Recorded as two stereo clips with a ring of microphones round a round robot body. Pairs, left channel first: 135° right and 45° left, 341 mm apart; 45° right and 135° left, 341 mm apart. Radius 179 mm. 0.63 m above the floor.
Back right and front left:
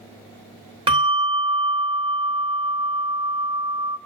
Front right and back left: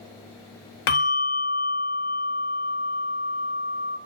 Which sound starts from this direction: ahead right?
A bell, at 0.9 s.